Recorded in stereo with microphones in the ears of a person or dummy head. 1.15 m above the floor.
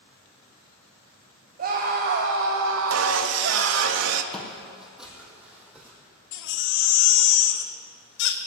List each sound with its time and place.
1.6 s a scream: 50° right (ahead or behind), 1.3 m; by 3.9 s 60° right (ahead or behind), 1.1 m
2.9 s sawing: 80° right, 0.9 m
4.3 s footsteps: centre (ahead or behind), 2 m; by 6.0 s 5° right (ahead or behind), 4 m
6.3 s a baby crying: 65° left (ahead or behind), 1.3 m